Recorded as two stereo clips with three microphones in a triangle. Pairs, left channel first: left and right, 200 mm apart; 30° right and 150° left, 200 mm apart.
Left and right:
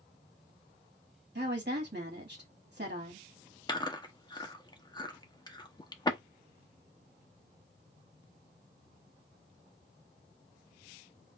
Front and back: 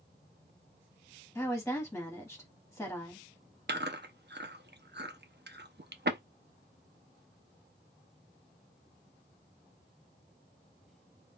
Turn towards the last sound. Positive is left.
turn(degrees=155)